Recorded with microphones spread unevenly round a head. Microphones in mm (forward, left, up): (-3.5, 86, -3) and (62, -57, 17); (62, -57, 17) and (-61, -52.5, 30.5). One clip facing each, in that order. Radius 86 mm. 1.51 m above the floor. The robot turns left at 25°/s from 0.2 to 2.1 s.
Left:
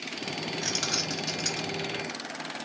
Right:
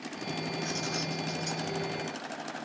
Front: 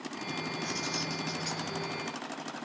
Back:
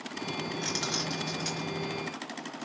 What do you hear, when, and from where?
0.6 s keys jangling: 140° left, 1.9 m; by 1.8 s 110° left, 1.9 m